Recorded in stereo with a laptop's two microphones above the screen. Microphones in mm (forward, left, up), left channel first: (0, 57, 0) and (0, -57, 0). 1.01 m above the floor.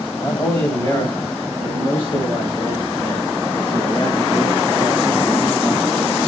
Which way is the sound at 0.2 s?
35° left (ahead or behind).